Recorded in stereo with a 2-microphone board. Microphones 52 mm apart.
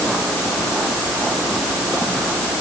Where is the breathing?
No breathing in this recording.